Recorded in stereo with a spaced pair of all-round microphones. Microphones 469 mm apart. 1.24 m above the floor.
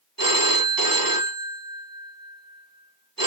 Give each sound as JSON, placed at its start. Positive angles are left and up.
{"t": 0.2, "sound": "a phone ringing", "side_deg": -45, "distance_m": 1.2}